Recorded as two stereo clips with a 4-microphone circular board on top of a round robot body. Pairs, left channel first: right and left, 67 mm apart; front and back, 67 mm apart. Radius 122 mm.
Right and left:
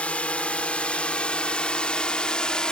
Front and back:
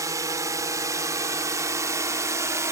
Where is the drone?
160° right; by 2.7 s 165° right.